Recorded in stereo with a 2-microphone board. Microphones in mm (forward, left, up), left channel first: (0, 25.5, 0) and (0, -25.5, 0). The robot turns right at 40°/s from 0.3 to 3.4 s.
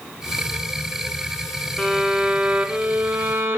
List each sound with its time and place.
1.8 s a violin: 175° left, 1.1 m; by 3.6 s 120° right, 1.1 m